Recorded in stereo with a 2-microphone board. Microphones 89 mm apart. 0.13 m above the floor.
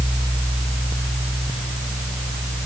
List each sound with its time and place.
Only background noise.